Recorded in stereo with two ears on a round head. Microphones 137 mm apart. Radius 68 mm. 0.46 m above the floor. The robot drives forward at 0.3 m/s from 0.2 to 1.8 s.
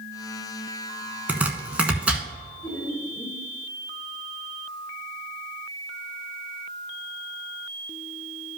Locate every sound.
1.3 s chopping: 10° right (ahead or behind), 0.9 m
2.6 s laughter: 20° left (ahead or behind), 2.5 m